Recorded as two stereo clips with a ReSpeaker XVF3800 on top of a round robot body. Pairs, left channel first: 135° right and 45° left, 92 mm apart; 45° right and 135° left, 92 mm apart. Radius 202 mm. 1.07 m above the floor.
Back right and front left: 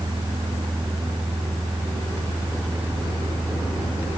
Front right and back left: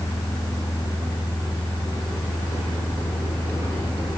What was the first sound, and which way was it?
Only background noise.